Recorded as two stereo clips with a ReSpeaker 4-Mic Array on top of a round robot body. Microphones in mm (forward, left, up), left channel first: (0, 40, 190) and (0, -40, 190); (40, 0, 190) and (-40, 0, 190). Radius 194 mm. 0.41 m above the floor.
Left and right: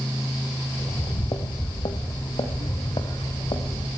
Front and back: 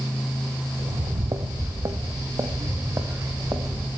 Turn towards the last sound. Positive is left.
turn(degrees=115)